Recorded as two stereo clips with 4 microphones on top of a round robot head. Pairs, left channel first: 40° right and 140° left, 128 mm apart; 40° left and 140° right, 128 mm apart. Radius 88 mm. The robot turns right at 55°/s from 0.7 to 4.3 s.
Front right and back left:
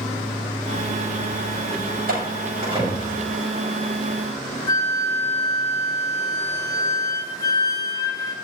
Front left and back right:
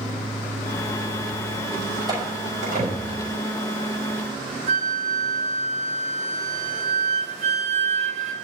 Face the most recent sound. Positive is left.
turn(degrees=-100)